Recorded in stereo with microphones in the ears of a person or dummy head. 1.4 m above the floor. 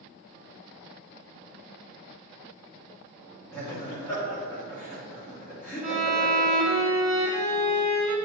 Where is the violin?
30° right (ahead or behind), 1.1 m.